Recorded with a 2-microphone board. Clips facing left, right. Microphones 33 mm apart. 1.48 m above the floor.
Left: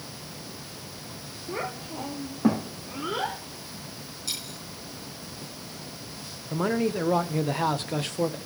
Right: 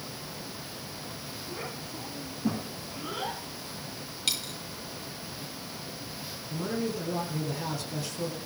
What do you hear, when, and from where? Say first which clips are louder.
1.5 s a child speaking: left 7 dB; 65° left (ahead or behind), 2 m; by 3.4 s 45° left (ahead or behind), 3 m
4.3 s a dropped coin: right 4 dB; 65° right (ahead or behind), 4 m
6.5 s a man speaking: left 6 dB; 50° left (ahead or behind), 1.5 m